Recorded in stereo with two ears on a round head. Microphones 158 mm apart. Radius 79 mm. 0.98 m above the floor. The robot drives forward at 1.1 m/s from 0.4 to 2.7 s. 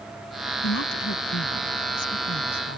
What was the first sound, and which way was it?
A woman speaking, 80° left.